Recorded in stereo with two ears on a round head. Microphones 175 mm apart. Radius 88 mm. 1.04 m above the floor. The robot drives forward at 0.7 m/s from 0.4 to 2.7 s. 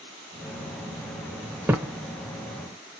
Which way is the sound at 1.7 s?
10° right (ahead or behind).